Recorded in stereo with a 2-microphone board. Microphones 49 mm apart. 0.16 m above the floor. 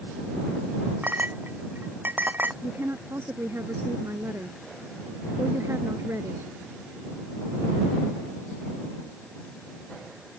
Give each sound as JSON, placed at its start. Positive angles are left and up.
{"t": 1.0, "sound": "a clink", "side_deg": -40}
{"t": 2.6, "sound": "a woman speaking", "side_deg": -60}